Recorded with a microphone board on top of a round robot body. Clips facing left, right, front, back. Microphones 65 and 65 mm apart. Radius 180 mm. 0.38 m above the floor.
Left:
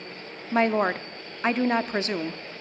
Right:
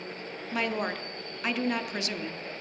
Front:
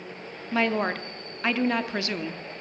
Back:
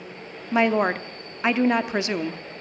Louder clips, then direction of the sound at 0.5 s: Left 8 dB, back 5 dB; 120° left.